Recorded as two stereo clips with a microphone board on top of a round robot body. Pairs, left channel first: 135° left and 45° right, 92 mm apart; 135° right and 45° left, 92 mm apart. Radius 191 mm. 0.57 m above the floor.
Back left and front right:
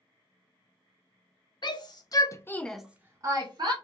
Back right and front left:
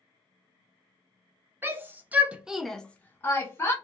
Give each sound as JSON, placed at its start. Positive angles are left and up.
{"t": 1.6, "sound": "a shout", "azimuth_deg": 110, "distance_m": 1.0}